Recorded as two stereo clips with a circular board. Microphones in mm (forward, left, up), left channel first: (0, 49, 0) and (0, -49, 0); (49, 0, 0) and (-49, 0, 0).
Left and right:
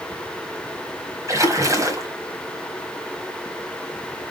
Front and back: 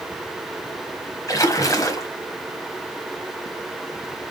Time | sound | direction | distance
1.3 | a splash | 45° right | 1.3 m